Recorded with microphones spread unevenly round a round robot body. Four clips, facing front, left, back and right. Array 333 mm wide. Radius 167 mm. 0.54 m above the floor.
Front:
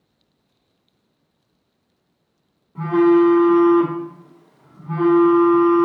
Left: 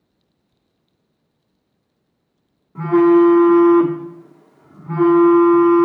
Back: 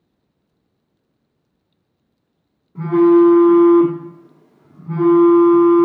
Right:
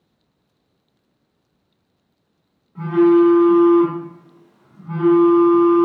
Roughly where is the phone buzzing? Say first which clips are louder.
Left 1 dB, back 3 dB; behind left.